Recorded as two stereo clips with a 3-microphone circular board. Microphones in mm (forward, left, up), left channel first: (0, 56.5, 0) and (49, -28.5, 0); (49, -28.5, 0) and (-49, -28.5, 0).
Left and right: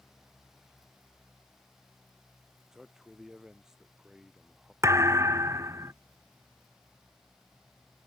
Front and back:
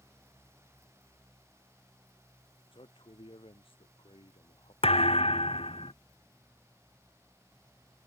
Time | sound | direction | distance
2.7 | a man speaking | 25° left | ?
4.8 | a thud | straight ahead | ?